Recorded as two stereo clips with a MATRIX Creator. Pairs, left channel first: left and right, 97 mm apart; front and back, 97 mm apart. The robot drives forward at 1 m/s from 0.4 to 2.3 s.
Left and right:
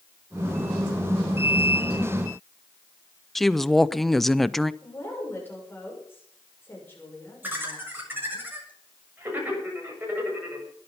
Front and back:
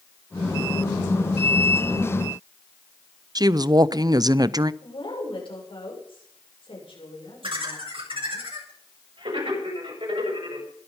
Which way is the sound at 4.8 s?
20° left.